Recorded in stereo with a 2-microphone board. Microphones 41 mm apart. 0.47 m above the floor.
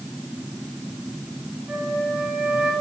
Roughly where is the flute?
Right.